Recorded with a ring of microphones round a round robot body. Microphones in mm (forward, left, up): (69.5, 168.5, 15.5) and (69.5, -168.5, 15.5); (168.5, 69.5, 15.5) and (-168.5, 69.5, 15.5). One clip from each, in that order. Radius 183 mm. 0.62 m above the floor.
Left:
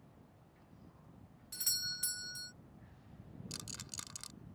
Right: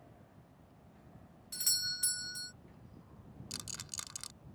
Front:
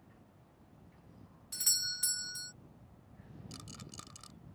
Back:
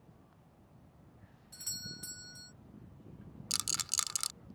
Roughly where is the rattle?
Behind.